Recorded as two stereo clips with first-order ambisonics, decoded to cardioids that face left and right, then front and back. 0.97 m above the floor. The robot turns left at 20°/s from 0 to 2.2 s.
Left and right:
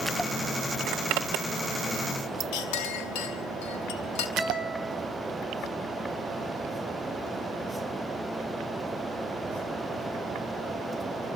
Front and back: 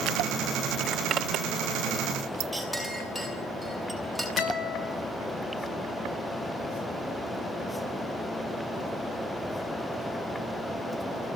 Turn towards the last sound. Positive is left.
turn(degrees=0)